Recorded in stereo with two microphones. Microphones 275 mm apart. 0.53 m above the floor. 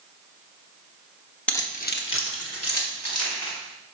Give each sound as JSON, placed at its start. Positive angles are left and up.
{"t": 1.5, "sound": "keys jangling", "side_deg": 5, "distance_m": 0.7}